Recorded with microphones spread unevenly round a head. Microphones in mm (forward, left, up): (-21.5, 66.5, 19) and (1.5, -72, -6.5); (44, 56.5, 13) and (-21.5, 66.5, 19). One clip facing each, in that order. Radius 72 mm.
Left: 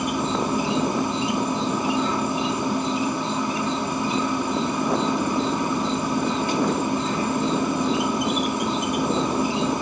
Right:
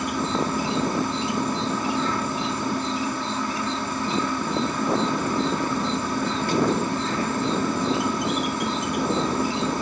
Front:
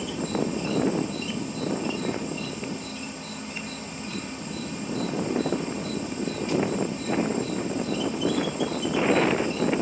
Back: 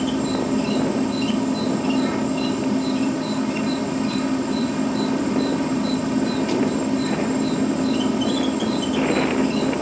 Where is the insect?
175° left.